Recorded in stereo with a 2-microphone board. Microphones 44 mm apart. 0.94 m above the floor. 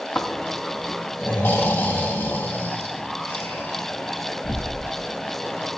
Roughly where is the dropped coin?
No dropped coin in this recording.